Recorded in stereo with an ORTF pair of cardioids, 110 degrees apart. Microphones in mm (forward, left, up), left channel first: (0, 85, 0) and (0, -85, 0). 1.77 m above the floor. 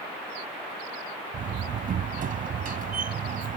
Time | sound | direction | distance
1.3 | a door slam | 50° right | ?